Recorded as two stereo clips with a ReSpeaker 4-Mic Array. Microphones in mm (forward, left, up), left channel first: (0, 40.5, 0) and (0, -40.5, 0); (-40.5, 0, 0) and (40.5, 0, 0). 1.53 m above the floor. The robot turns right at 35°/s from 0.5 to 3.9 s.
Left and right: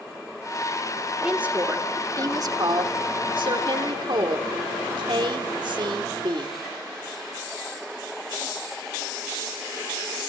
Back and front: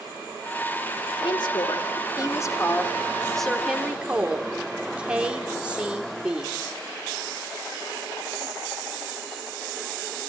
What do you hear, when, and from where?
1.2 s a woman speaking: 170° right, 3.5 m; by 6.6 s 75° right, 3.5 m